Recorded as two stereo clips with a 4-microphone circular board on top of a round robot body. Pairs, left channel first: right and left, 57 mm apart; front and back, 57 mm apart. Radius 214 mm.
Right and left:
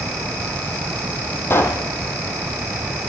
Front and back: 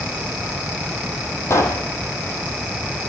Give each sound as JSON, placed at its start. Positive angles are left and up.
{"t": 1.5, "sound": "a pop", "azimuth_deg": -40, "distance_m": 3.5}